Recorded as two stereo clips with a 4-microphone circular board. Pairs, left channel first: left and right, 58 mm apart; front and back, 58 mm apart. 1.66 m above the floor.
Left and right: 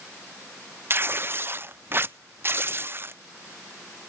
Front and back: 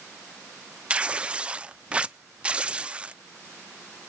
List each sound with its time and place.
0.9 s tearing paper: 115° right, 0.5 m